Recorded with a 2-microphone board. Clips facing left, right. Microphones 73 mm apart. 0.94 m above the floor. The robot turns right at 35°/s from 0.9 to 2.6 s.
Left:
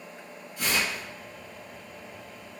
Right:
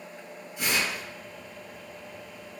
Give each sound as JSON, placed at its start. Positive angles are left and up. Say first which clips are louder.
{"t": 0.6, "sound": "tearing paper", "louder": "even", "side_deg": -15, "distance_m": 1.7}